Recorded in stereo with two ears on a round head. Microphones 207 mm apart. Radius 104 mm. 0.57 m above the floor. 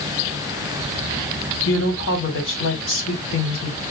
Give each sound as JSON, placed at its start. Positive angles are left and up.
{"t": 1.6, "sound": "a woman speaking", "side_deg": 60, "distance_m": 2.0}